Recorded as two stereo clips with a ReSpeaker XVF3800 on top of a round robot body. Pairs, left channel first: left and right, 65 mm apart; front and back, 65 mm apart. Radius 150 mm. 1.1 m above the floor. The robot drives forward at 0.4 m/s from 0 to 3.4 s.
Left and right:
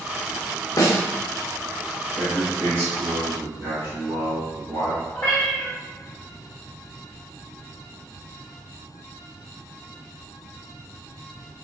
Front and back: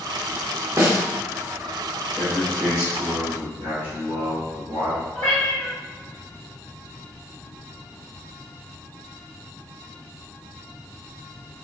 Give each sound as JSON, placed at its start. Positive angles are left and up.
{"t": 0.8, "sound": "a snare drum", "azimuth_deg": 130, "distance_m": 0.8}
{"t": 2.2, "sound": "a man speaking", "azimuth_deg": -120, "distance_m": 1.2}
{"t": 5.1, "sound": "a cat meowing", "azimuth_deg": 165, "distance_m": 1.0}